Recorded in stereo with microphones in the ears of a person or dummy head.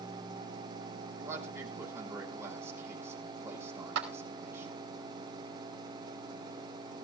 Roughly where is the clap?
Right.